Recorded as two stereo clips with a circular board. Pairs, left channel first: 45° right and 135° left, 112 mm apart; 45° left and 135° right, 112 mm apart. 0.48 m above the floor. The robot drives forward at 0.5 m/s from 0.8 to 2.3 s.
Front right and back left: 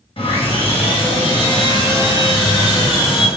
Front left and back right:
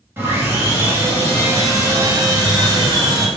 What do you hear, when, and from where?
0.2 s sawing: 70° right, 2.5 m; by 3.3 s 85° right, 2.5 m